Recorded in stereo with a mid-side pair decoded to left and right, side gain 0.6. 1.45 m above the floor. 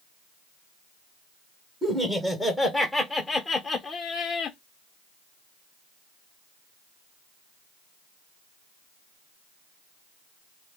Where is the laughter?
15° right, 1.7 m; by 4.6 s 45° left, 0.7 m.